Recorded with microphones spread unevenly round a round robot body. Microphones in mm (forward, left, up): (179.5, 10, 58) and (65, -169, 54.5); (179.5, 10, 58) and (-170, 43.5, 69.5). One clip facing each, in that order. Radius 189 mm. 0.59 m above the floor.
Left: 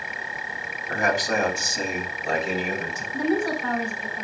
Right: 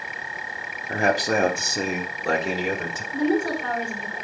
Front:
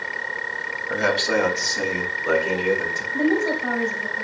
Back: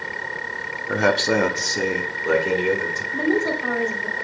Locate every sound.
0.9 s a man speaking: 170° left, 1.0 m; by 3.0 s 115° right, 2.5 m
3.1 s a woman speaking: 165° right, 2.5 m